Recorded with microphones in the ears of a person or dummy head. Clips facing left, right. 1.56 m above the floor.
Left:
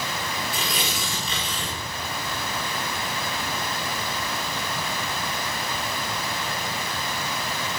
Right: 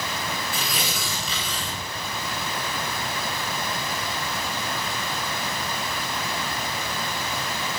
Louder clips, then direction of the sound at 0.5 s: Left 1 dB; centre (ahead or behind).